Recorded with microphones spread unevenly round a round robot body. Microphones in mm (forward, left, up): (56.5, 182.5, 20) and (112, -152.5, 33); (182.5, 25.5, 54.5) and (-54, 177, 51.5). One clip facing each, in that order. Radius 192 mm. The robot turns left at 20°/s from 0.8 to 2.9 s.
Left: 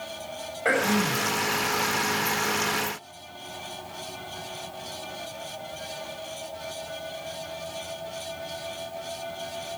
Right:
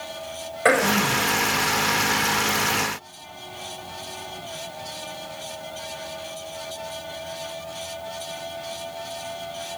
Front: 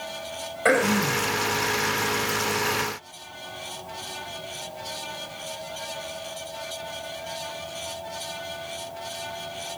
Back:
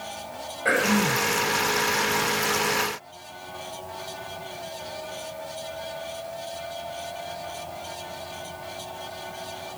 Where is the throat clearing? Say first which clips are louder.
Right 4 dB, front 2 dB; 70° right, 4 m; by 1.3 s 80° right, 4 m.